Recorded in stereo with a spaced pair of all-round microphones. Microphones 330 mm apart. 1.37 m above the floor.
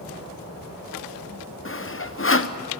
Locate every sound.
1.6 s sawing: 35° left (ahead or behind), 0.7 m